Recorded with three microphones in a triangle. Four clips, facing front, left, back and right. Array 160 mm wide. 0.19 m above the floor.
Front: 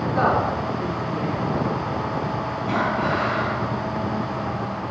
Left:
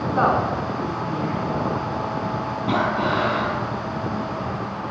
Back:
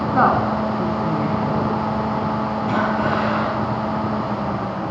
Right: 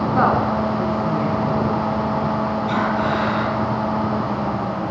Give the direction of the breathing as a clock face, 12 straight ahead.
9 o'clock.